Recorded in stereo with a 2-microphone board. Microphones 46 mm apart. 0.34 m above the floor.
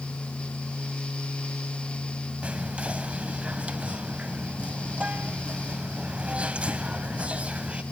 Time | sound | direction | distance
2.4 | whispering | 25° right (ahead or behind) | 1.8 m